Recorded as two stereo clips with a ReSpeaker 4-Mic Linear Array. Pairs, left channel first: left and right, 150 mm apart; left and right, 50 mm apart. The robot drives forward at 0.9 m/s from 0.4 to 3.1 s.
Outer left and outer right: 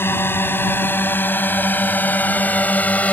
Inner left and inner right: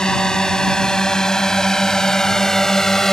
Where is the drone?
15° left (ahead or behind); by 3.1 s 10° left (ahead or behind).